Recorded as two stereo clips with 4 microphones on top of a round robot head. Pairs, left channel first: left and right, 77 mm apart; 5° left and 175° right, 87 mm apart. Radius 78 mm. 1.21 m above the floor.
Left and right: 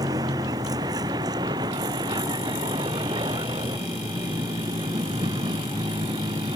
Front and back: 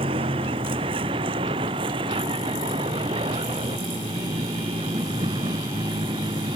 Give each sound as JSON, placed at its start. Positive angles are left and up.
{"t": 0.0, "sound": "a vehicle", "azimuth_deg": -145}